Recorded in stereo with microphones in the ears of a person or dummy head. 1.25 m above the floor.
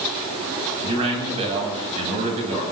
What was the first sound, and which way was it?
A man speaking, 30° right (ahead or behind).